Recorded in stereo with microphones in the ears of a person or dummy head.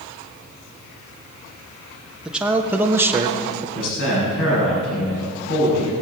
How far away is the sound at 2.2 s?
About 1.4 m.